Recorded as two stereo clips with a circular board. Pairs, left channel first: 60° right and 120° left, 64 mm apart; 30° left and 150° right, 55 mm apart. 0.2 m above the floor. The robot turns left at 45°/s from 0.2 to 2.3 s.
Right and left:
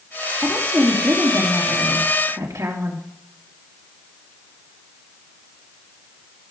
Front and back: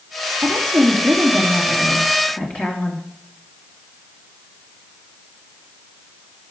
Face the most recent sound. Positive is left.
turn(degrees=95)